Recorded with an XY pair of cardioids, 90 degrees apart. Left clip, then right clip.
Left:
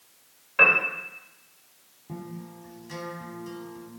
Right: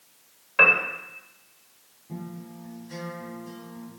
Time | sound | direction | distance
0.6 | a piano | 20° right | 2.5 m
2.1 | a guitar | 60° left | 3 m